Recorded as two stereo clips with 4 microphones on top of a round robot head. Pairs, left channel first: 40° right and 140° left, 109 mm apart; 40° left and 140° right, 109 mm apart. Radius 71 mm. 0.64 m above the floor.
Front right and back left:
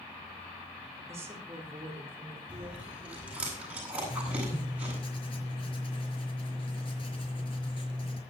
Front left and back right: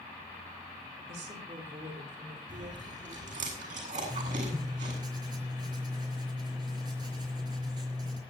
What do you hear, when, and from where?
1.1 s a woman speaking: 155° right, 6 m; by 3.5 s 140° right, 7 m
2.5 s chewing: 140° right, 8 m
4.1 s writing: 85° right, 4.5 m